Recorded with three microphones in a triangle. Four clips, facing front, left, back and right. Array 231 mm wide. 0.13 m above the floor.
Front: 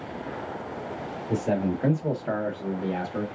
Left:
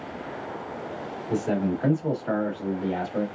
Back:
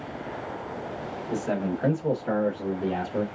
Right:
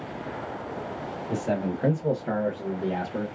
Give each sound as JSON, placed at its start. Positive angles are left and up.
{"t": 1.3, "sound": "a man speaking", "azimuth_deg": 0, "distance_m": 1.4}